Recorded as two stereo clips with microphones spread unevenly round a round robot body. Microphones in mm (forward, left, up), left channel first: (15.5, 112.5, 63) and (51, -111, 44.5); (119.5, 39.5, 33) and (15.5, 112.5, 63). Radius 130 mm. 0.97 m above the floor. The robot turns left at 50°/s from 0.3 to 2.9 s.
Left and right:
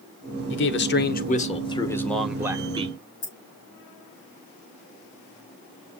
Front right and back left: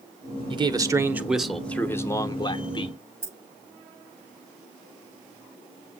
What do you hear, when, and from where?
0.5 s a man speaking: 90° left, 0.8 m; by 3.0 s 30° right, 0.8 m
3.2 s keys jangling: 80° left, 4.5 m